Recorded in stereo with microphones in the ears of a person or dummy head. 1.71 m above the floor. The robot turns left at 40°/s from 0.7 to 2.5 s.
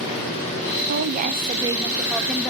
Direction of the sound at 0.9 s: 125° right.